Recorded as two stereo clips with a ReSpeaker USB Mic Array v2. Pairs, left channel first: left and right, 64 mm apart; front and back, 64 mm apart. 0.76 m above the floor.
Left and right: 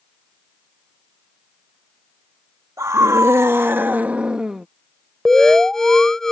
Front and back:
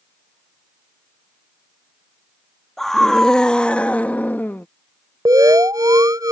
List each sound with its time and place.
2.8 s a scream: 85° right; by 4.7 s 10° right
5.2 s an alarm: 175° left